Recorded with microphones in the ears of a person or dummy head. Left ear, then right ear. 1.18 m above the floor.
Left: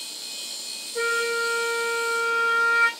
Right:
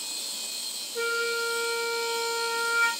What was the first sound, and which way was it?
A flute, 35° left (ahead or behind).